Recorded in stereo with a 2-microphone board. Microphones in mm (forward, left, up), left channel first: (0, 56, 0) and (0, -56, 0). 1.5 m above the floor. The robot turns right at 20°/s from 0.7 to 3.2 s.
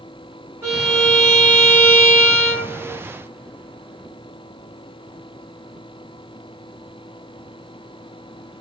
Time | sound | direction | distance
0.6 | a violin | 40° right | 1.7 m